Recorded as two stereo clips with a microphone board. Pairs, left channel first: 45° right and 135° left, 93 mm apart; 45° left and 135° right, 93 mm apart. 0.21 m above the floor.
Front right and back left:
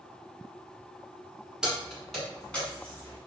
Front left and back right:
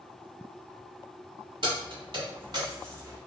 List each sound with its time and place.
1.6 s keys jangling: 140° right, 1.3 m; by 3.2 s 95° right, 1.0 m